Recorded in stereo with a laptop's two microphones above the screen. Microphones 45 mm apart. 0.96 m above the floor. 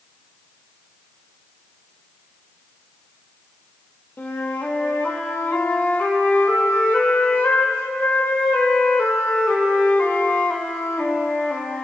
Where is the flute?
60° left (ahead or behind), 1.2 m.